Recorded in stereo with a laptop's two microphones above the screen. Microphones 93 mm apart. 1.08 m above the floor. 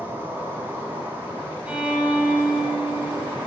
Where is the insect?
20° right (ahead or behind), 1.7 m.